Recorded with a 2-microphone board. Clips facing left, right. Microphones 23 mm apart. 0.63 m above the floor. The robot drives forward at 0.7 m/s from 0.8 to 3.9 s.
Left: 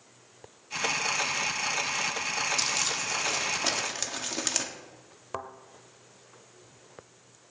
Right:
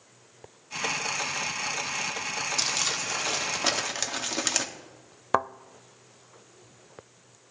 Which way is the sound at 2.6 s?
10° right (ahead or behind).